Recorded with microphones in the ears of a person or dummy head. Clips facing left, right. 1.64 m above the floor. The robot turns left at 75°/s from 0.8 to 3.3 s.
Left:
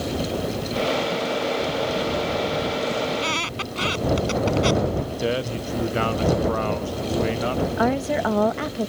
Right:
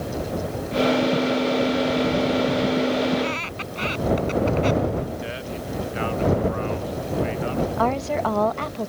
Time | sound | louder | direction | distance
3.1 | a squeak | right 2 dB | 35° left (ahead or behind) | ?
5.2 | a man speaking | left 6 dB | 50° left (ahead or behind) | ?
7.8 | a woman speaking | left 2 dB | 15° left (ahead or behind) | ?